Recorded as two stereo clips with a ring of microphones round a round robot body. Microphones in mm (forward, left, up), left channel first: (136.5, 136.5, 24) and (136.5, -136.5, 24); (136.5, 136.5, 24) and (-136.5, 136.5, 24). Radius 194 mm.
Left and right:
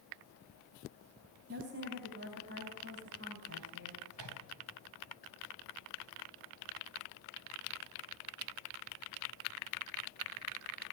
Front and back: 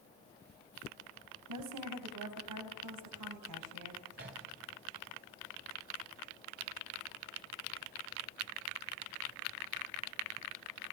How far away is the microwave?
About 4 m.